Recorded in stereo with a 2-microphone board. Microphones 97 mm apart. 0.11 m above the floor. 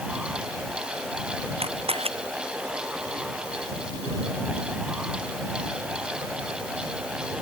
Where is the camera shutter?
80° right.